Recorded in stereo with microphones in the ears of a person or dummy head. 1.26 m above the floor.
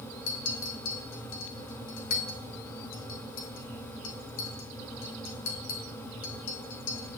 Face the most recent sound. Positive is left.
turn(degrees=65)  # may be behind; listen again after turning